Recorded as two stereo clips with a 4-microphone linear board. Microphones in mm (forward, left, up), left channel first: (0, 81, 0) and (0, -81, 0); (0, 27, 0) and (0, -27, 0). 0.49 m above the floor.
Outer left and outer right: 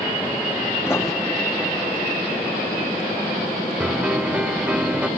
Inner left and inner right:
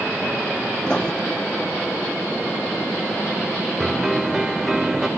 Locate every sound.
0.9 s writing: 15° left (ahead or behind)
3.8 s a piano: 10° right (ahead or behind)